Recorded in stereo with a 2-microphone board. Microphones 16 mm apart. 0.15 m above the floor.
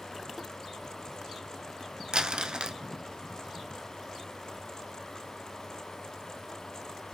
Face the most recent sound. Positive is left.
turn(degrees=-60)  # may be behind; listen again after turning